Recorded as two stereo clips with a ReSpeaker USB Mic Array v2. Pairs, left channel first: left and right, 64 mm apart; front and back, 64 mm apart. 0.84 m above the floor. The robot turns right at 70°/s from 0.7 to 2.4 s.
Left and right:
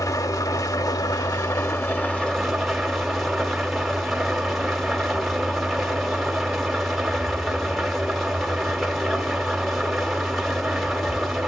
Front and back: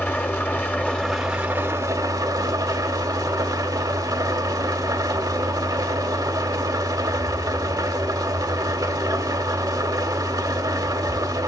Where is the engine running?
60° left, 1.0 m; by 11.5 s straight behind, 1.0 m.